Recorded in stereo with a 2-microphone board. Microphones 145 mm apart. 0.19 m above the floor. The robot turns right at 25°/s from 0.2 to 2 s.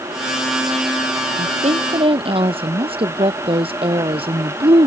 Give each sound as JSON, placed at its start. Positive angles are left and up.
{"t": 1.4, "sound": "a woman speaking", "side_deg": -55}